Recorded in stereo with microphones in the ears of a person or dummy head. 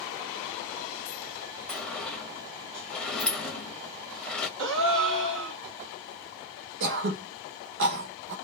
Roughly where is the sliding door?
Centre.